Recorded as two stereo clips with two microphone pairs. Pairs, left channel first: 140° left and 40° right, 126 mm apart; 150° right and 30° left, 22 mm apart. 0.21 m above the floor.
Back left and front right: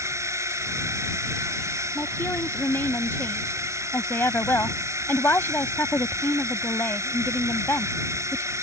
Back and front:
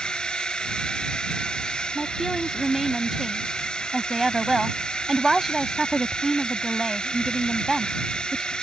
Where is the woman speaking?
105° left.